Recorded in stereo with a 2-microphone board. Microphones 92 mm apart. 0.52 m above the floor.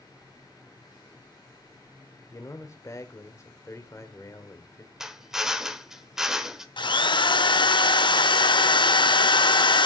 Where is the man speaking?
35° left (ahead or behind), 1.5 m.